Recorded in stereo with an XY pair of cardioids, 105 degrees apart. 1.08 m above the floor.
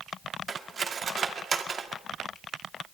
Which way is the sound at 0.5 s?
40° right.